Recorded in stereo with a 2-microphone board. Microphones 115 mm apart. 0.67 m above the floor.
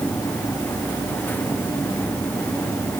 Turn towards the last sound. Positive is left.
No sound to turn to.